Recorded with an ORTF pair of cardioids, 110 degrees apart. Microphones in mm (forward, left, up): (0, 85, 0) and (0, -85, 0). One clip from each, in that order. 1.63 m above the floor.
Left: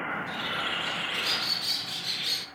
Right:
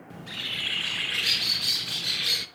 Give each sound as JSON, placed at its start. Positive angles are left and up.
{"t": 0.1, "sound": "a bird", "azimuth_deg": -20, "distance_m": 0.5}